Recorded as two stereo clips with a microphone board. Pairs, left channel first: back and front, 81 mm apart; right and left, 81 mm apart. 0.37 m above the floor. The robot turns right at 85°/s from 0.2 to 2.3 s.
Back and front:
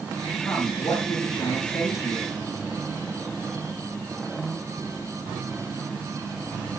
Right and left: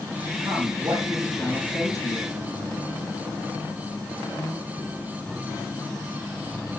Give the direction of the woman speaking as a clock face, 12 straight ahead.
9 o'clock.